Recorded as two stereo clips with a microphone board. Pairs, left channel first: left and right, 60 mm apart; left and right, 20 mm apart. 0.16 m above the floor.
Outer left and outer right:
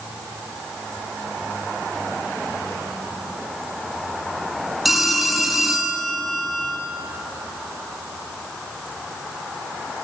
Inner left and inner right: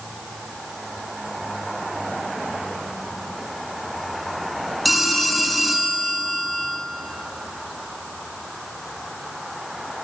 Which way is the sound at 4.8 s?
5° right (ahead or behind).